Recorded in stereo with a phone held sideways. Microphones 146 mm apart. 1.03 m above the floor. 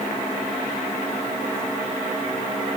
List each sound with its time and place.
Only background noise.